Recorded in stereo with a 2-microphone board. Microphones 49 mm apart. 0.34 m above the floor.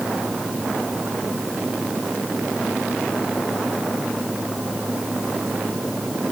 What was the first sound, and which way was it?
Only background noise.